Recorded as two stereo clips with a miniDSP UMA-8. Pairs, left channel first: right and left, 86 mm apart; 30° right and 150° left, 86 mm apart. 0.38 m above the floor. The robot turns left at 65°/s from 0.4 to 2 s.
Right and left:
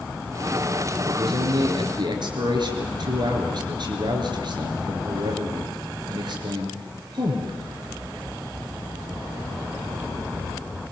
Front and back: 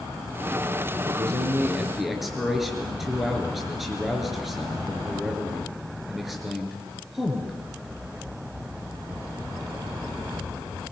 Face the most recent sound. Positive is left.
turn(degrees=60)